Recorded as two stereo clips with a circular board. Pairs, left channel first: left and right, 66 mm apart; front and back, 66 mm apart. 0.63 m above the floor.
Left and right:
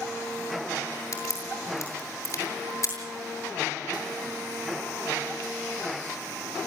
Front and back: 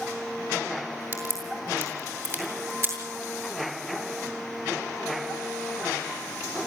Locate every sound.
1.1 s a crack: 130° left, 7 m